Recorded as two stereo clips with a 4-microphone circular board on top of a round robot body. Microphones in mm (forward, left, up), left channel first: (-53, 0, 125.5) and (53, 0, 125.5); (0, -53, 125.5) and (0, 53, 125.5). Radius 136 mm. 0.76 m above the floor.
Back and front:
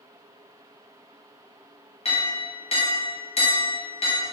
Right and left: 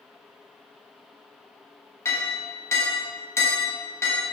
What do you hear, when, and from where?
2.0 s a clink: 155° right, 0.8 m